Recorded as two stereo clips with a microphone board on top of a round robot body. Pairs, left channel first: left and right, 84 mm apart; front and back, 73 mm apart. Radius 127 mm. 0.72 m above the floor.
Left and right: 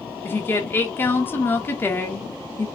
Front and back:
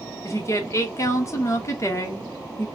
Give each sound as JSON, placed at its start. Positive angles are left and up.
{"t": 0.2, "sound": "a woman speaking", "azimuth_deg": 30, "distance_m": 1.2}